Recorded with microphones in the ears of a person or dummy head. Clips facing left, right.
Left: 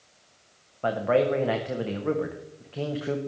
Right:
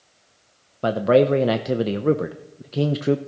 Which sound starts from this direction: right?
A man speaking, at 0.8 s.